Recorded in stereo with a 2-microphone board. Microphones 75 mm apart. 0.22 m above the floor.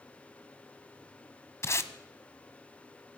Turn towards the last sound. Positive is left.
turn(degrees=40)  # may be behind; listen again after turning